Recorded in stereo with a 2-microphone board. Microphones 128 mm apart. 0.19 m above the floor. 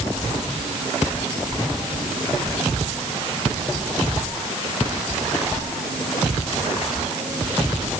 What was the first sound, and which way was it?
Only background noise.